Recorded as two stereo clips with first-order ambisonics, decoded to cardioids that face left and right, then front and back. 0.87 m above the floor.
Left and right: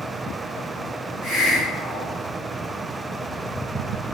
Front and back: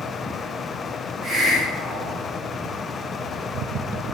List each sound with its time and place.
1.2 s a hiss: 90° left, 1.8 m